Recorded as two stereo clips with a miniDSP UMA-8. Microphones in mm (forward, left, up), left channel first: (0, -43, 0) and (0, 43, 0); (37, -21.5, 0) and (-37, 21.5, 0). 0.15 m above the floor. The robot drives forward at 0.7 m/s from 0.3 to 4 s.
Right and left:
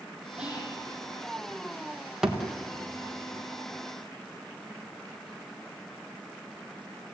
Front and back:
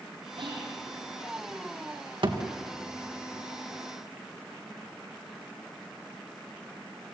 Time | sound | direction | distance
0.4 | whispering | 170° left | 7 m
2.2 | a thud | 175° left | 3.5 m